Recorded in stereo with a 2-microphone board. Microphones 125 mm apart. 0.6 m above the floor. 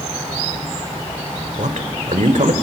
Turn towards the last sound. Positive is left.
turn(degrees=-70)  # may be behind; listen again after turning